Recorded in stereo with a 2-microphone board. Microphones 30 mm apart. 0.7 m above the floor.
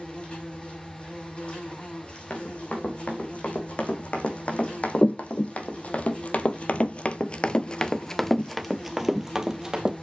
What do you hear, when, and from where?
0.0 s an insect: 35° left (ahead or behind), 5.5 m
2.3 s running footsteps: 40° left (ahead or behind), 3 m; by 9.9 s 20° right (ahead or behind), 1.3 m